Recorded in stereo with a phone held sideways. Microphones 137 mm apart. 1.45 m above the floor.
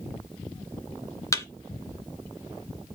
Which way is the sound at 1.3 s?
20° left (ahead or behind).